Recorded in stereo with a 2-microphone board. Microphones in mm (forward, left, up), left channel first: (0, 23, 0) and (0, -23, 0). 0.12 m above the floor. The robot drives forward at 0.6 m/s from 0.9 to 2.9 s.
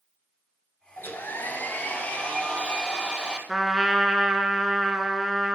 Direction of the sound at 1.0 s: 50° left (ahead or behind).